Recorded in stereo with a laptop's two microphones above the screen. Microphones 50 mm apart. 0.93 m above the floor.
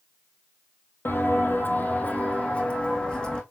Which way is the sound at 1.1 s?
50° left (ahead or behind).